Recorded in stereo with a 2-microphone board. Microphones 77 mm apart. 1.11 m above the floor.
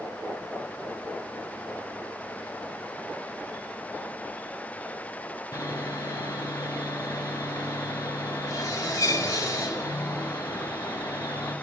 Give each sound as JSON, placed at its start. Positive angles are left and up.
{"t": 5.5, "sound": "sawing", "side_deg": 45, "distance_m": 1.5}